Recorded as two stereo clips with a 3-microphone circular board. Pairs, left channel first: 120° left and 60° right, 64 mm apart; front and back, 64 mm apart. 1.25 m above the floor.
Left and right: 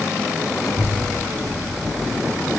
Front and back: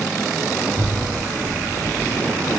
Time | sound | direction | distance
0.6 | a child speaking | 110° left | 6.5 m